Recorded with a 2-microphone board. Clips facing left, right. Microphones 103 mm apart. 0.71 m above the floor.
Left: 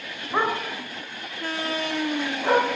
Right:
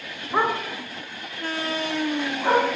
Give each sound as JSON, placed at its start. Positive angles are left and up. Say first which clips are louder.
{"t": 0.3, "sound": "a dog barking", "louder": "right 1 dB", "side_deg": 0, "distance_m": 1.2}